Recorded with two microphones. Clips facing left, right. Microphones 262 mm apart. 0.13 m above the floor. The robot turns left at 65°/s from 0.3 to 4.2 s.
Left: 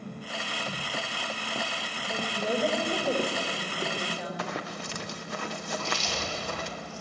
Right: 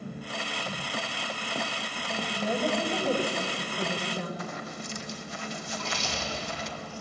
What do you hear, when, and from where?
2.1 s a woman speaking: 70° left, 8.5 m; by 4.3 s 70° right, 8.5 m
4.4 s running footsteps: 75° left (ahead or behind), 1.4 m; by 6.7 s 60° left (ahead or behind), 3.5 m
5.7 s chewing: 60° right (ahead or behind), 7 m